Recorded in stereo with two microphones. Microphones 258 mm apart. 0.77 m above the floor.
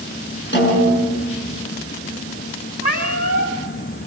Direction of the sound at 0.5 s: 45° left (ahead or behind).